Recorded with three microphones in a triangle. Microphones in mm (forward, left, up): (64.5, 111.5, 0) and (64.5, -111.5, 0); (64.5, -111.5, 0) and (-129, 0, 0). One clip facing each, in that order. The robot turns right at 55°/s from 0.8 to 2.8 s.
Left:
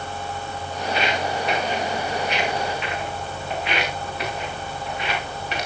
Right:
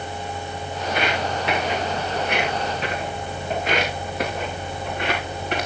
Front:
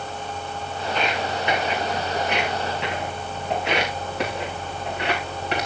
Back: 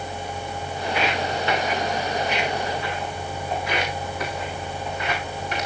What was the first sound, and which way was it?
Footsteps, 135° right.